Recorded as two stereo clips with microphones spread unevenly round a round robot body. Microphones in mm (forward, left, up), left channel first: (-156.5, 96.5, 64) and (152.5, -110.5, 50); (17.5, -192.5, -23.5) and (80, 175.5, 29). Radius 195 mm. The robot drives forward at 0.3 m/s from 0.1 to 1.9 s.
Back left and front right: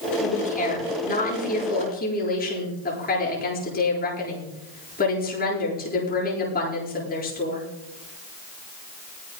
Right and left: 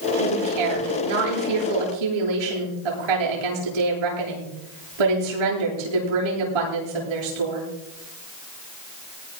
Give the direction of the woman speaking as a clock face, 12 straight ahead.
9 o'clock.